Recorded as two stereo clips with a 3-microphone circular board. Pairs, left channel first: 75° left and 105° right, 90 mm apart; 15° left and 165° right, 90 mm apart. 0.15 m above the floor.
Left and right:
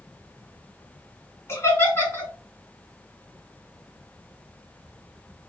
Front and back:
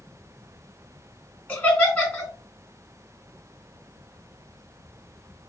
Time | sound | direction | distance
1.5 | laughter | 70° left | 1.9 m